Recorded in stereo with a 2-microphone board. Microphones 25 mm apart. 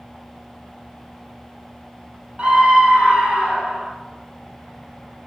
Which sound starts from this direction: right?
A scream, at 2.4 s.